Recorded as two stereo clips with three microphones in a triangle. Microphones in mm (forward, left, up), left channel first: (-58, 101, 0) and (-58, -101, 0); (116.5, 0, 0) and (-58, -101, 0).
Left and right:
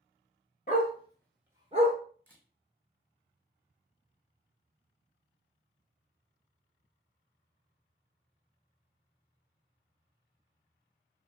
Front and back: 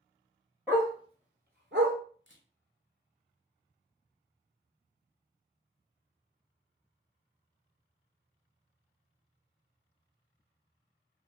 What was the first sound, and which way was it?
A dog barking, 130° left.